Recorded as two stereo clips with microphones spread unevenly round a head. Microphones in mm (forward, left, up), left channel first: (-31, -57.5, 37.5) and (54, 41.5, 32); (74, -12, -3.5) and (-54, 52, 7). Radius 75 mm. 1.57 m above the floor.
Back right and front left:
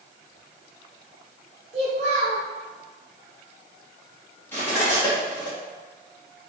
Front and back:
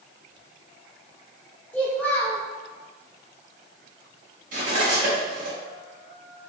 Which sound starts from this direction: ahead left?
A child speaking, at 1.7 s.